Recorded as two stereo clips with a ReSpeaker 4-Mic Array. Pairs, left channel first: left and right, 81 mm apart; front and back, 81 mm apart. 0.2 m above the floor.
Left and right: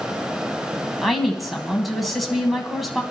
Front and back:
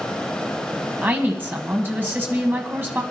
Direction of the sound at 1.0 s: Straight behind.